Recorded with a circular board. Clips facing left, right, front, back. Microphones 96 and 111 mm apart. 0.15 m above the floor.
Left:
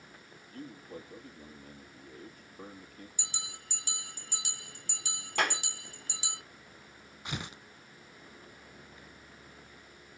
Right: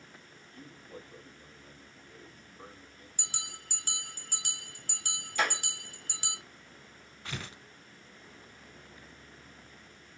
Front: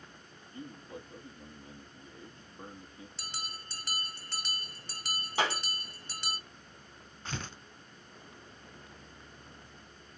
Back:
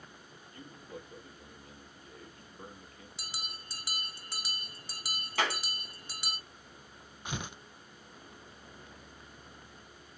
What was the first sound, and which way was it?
A man speaking, 65° left.